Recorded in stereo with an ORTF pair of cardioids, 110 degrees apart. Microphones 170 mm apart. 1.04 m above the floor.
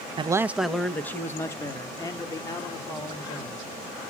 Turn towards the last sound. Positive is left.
turn(degrees=25)